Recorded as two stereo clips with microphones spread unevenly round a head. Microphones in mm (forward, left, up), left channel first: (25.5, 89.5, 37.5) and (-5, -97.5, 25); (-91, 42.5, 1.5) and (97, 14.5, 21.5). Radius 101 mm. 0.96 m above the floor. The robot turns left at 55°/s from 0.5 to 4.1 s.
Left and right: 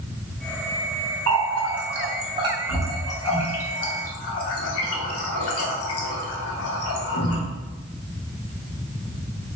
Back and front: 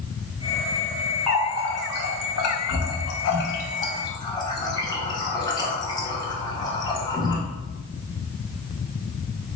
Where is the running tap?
100° right, 0.8 m; by 7.4 s 100° left, 0.8 m.